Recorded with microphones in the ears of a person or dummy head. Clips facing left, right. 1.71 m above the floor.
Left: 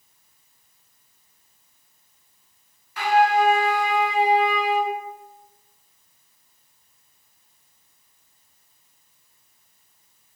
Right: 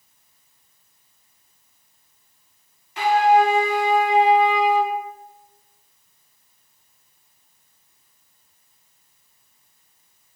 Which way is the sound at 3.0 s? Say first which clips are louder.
Right 3 dB; 20° right (ahead or behind).